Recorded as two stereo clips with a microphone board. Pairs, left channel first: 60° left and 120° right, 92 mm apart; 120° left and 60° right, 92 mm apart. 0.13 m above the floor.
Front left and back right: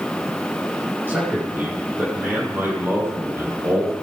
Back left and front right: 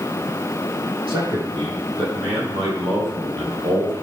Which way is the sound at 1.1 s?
55° right.